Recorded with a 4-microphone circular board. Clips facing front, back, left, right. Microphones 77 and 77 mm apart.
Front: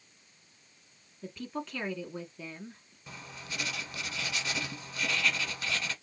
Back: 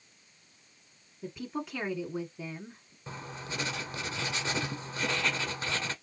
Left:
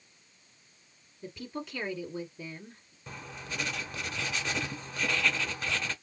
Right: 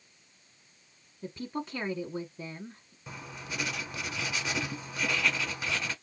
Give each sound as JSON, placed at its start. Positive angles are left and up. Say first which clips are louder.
{"t": 1.2, "sound": "a woman speaking", "louder": "back 1 dB, right 3 dB", "azimuth_deg": -110, "distance_m": 1.3}
{"t": 3.1, "sound": "writing", "louder": "back 4 dB, even", "azimuth_deg": -170, "distance_m": 0.7}